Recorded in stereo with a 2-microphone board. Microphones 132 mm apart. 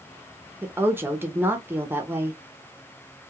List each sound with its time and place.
0.6 s a woman speaking: 15° right (ahead or behind), 0.7 m